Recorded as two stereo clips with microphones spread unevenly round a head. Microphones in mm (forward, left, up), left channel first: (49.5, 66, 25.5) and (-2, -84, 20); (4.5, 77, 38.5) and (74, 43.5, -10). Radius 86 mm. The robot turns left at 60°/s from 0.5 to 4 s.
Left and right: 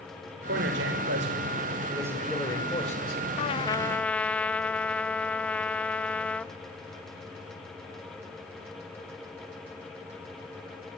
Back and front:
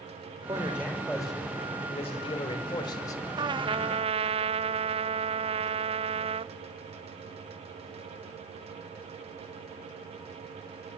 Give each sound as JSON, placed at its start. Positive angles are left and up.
{"t": 0.5, "sound": "a man speaking", "azimuth_deg": -90, "distance_m": 6.0}
{"t": 3.4, "sound": "a trumpet", "azimuth_deg": 30, "distance_m": 0.5}